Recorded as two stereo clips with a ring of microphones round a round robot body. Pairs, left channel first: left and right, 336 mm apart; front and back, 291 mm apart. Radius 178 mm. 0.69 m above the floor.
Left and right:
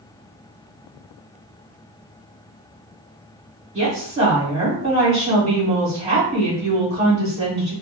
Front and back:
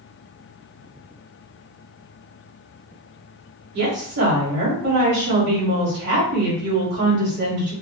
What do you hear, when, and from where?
3.7 s a woman speaking: 160° right, 2 m